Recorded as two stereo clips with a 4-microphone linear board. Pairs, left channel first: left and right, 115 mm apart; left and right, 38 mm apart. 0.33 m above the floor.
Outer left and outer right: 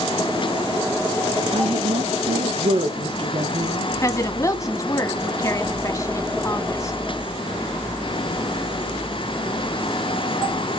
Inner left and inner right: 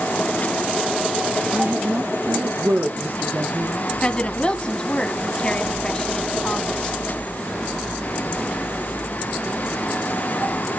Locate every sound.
1.5 s a woman speaking: 65° right (ahead or behind), 4.5 m
4.0 s a woman speaking: 30° left (ahead or behind), 2 m